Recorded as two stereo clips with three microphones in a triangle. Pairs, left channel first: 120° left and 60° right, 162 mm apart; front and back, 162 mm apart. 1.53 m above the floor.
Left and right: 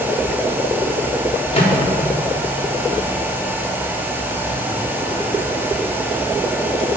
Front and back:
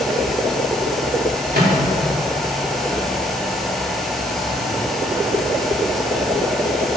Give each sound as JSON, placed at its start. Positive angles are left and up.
{"t": 1.5, "sound": "a microwave", "azimuth_deg": 165, "distance_m": 3.5}